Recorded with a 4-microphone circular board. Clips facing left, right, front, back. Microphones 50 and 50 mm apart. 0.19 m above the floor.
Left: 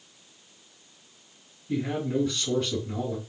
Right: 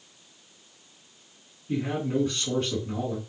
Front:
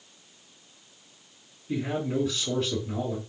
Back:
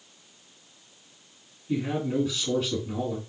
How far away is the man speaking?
About 2.5 m.